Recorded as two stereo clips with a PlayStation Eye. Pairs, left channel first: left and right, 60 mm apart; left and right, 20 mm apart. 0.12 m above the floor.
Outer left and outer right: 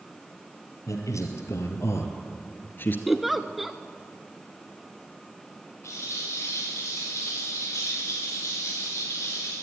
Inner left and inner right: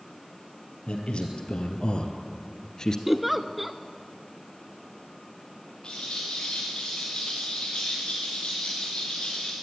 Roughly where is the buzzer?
No buzzer in this recording.